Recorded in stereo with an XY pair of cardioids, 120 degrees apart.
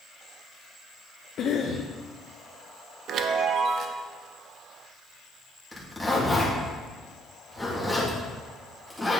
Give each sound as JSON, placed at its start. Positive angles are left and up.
{"t": 1.4, "sound": "a cough", "azimuth_deg": 55, "distance_m": 0.6}
{"t": 3.1, "sound": "a chime", "azimuth_deg": -60, "distance_m": 0.6}
{"t": 5.7, "sound": "a zipper", "azimuth_deg": 5, "distance_m": 2.0}